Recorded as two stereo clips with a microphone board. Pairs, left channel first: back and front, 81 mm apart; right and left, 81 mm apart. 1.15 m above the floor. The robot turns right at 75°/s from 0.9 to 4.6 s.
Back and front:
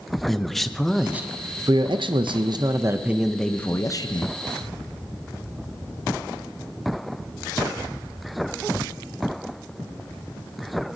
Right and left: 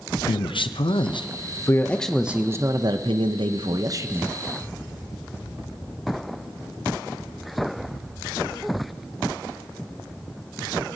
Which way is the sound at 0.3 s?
95° right.